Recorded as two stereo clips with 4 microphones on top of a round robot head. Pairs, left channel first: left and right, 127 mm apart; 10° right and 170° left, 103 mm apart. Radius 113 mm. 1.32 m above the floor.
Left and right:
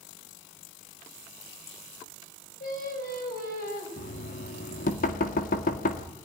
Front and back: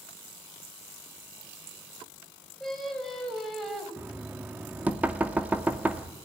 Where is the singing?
80° left, 6 m.